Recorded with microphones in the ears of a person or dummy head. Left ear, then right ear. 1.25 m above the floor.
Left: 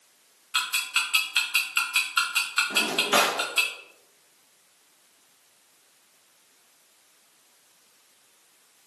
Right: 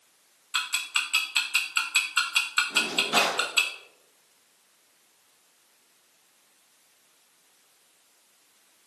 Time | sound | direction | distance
0.5 | ticking | 15° right (ahead or behind) | 0.6 m
2.7 | a drawer | 40° left (ahead or behind) | 0.8 m